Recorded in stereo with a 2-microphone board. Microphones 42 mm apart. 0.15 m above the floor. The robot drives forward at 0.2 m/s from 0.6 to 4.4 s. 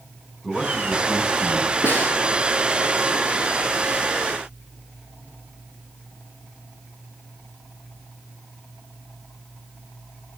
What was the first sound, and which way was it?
A man speaking, 10° left (ahead or behind).